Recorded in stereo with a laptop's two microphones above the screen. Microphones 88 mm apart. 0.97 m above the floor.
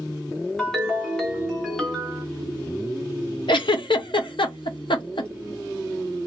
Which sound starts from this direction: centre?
A ringtone, at 0.6 s.